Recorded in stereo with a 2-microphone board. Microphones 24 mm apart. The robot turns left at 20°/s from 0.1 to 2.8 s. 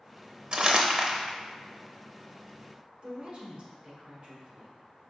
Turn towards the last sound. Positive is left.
turn(degrees=-50)  # may be behind; listen again after turning